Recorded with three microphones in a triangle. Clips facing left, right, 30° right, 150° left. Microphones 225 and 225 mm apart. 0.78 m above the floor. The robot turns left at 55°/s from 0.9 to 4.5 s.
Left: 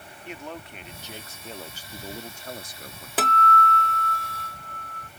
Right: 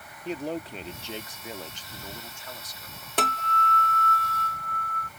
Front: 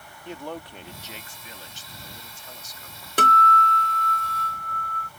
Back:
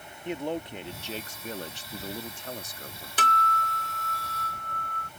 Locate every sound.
0.2 s a man speaking: 140° right; by 3.1 s 100° left
3.2 s a guitar: 5° left; by 5.1 s 70° right